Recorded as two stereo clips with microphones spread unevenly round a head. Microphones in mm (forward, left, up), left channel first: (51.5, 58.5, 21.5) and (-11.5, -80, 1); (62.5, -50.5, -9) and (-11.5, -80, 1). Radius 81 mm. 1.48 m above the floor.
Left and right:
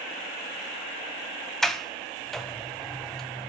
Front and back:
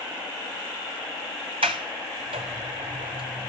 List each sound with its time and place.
1.6 s a sliding door: 155° left, 0.5 m